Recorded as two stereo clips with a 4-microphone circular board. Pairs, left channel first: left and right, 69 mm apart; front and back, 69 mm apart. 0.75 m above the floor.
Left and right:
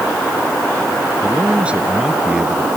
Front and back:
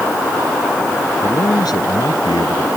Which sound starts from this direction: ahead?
A man speaking, at 1.2 s.